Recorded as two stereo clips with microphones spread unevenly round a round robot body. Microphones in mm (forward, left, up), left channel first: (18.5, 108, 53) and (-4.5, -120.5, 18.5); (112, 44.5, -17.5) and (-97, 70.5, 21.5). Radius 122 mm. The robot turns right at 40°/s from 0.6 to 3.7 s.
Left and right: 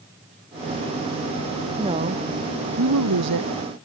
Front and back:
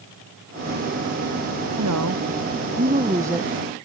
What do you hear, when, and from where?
1.8 s a woman speaking: 165° right; by 3.5 s 100° right